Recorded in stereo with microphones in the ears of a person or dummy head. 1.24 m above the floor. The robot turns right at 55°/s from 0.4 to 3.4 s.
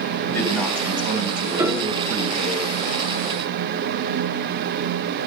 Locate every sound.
0.2 s a man speaking: 170° left, 9 m; by 2.6 s 70° right, 9 m
1.6 s a piano: 15° right (ahead or behind), 3.5 m; by 2.0 s 5° left (ahead or behind), 3.5 m